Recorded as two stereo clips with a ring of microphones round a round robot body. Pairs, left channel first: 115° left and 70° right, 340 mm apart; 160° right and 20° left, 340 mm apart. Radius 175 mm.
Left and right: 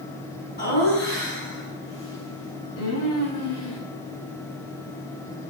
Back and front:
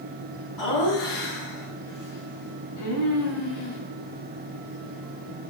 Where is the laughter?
175° left, 6 m; by 3.8 s 155° left, 6.5 m.